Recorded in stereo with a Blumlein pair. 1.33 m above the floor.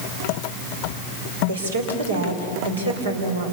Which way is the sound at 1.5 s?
70° right.